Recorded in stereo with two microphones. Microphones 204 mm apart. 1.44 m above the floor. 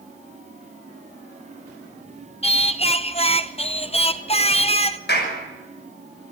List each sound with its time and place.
2.4 s singing: 30° left (ahead or behind), 0.7 m
5.1 s a clap: 55° left (ahead or behind), 5.5 m